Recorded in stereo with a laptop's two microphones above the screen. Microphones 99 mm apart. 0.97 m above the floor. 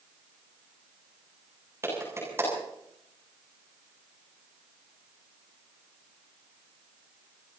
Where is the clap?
30° right (ahead or behind), 7.5 m.